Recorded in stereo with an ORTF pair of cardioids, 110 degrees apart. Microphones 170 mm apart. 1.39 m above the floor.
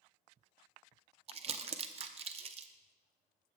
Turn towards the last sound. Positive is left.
turn(degrees=-35)